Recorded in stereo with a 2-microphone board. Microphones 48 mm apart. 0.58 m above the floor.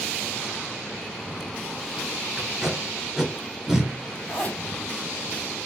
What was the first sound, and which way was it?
Tape being pulled, 10° right (ahead or behind).